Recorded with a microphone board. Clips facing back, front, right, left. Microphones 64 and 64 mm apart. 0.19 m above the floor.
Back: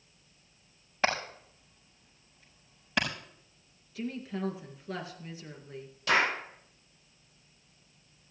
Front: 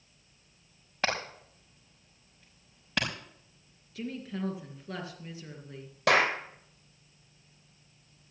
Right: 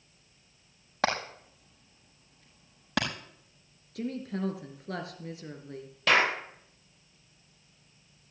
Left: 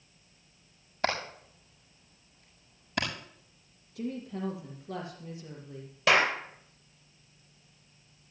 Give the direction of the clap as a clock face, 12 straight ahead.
12 o'clock.